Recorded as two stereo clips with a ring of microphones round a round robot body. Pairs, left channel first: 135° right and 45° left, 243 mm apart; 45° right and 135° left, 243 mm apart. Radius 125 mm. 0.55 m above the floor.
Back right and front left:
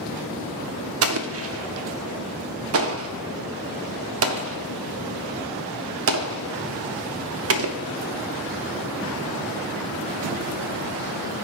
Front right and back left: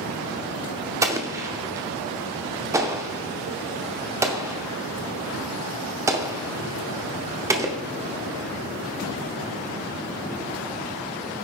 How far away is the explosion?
About 0.7 m.